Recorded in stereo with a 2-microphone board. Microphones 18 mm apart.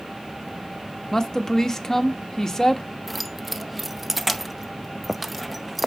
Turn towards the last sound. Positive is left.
turn(degrees=0)  # may be behind; listen again after turning